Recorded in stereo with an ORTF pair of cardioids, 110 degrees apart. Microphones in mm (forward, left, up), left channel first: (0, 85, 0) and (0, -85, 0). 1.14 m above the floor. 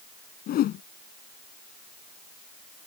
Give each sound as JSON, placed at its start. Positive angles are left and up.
{"t": 0.5, "sound": "a whoosh", "azimuth_deg": 65}